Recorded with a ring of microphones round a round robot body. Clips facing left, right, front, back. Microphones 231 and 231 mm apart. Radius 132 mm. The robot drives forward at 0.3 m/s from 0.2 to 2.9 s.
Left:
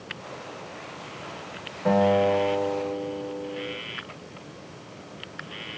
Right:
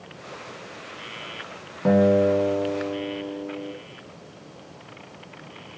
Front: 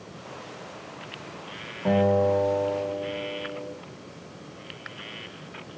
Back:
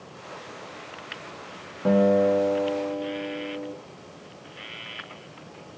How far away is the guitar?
About 1.1 m.